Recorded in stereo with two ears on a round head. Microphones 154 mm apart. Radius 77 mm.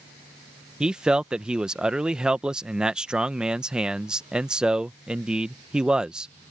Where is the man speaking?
5° right (ahead or behind).